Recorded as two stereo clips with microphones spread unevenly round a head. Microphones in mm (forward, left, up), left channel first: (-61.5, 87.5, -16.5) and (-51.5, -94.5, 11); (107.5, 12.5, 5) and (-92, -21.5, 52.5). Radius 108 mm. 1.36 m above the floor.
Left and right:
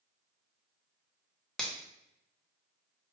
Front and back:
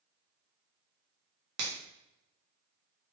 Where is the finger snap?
Straight behind, 0.7 m.